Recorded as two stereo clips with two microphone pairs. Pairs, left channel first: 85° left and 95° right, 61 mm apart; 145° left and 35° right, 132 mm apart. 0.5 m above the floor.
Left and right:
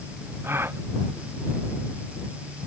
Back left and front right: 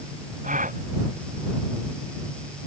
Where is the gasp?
45° right.